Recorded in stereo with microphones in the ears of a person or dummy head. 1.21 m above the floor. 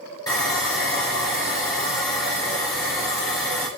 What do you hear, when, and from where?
0.3 s sawing: 20° left (ahead or behind), 1.8 m